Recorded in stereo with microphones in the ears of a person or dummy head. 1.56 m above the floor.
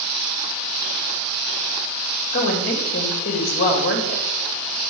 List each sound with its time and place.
2.3 s a woman speaking: 50° left (ahead or behind), 2.5 m